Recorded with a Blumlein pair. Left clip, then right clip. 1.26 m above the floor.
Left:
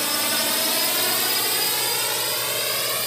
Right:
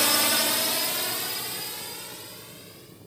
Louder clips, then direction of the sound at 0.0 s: Even; 10° right.